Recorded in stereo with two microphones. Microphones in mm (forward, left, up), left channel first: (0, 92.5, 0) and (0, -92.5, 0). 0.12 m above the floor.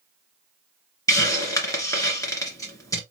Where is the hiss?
15° left (ahead or behind), 1.8 m.